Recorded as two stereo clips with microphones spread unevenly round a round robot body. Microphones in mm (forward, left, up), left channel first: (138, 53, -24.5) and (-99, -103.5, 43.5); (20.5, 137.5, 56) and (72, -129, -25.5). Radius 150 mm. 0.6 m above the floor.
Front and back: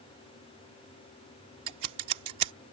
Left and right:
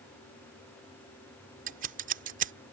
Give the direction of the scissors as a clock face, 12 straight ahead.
4 o'clock.